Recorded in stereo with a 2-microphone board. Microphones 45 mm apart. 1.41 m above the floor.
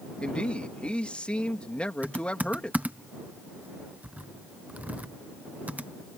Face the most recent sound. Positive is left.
turn(degrees=-35)  # may be behind; listen again after turning